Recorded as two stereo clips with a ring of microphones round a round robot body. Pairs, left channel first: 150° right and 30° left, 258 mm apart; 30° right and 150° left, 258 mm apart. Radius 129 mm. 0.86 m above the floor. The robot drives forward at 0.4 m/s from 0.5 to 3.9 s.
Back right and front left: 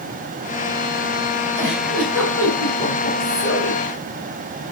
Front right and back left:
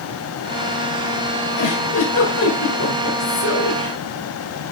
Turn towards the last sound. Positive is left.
turn(degrees=-75)